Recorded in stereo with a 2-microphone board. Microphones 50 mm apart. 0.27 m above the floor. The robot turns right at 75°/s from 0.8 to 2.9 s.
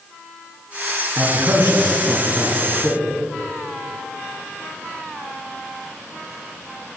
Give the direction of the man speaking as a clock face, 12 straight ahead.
4 o'clock.